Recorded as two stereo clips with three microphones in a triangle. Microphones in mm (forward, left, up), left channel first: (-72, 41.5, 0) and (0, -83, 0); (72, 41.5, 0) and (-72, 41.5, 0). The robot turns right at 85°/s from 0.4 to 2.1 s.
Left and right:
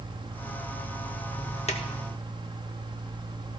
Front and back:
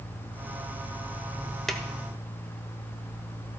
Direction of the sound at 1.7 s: 85° left.